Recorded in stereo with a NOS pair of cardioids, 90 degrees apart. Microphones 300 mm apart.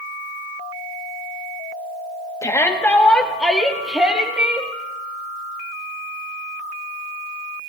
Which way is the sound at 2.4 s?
10° left.